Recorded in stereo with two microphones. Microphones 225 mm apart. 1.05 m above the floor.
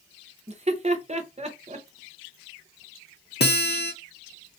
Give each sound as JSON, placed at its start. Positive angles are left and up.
{"t": 0.5, "sound": "laughter", "side_deg": -30, "distance_m": 0.8}
{"t": 3.4, "sound": "a guitar", "side_deg": 45, "distance_m": 0.7}